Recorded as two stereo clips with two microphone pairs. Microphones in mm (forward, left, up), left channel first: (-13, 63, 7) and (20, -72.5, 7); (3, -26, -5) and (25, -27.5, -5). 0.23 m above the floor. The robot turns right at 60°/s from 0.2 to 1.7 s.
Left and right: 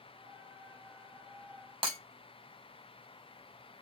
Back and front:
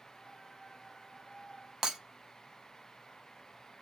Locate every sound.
1.8 s breaking glass: 50° right, 0.6 m